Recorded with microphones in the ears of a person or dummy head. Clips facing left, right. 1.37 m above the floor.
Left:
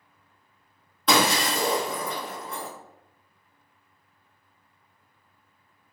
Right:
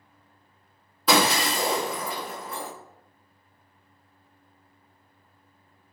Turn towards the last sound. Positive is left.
turn(degrees=0)  # may be behind; listen again after turning